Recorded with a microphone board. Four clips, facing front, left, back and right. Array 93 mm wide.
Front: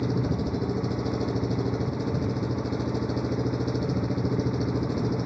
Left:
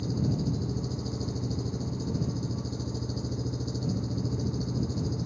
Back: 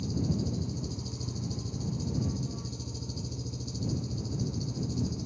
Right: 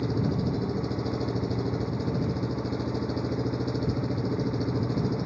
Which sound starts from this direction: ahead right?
An engine running, at 0.0 s.